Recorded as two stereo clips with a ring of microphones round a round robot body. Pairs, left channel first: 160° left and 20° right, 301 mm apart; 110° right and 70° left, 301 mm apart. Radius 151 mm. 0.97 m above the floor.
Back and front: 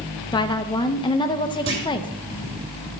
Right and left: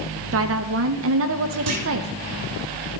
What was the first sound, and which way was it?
A woman speaking, 90° left.